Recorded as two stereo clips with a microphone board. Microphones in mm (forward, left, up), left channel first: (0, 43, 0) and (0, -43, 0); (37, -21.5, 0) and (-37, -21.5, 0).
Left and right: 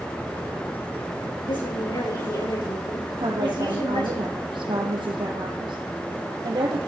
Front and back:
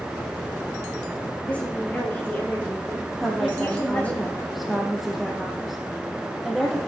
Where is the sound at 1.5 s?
70° left, 6.5 m.